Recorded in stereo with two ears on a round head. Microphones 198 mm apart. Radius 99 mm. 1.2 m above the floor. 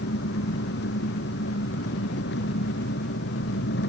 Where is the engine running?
55° left (ahead or behind).